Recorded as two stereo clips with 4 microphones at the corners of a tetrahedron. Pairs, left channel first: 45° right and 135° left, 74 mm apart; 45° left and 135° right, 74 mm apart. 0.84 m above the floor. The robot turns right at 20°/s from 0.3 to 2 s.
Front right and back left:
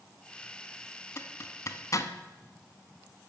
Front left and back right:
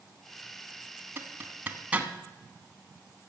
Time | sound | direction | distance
1.2 | a zipper | 85° right | 1.1 m